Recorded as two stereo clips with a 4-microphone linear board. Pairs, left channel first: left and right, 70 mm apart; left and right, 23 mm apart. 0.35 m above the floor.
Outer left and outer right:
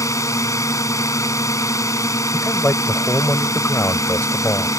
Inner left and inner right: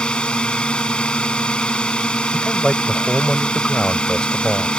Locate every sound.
0.0 s a drone: 50° left (ahead or behind)
2.3 s a man speaking: 35° left (ahead or behind)